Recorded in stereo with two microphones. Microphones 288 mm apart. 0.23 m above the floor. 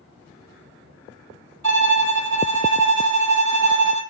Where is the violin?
75° right (ahead or behind), 1.2 m.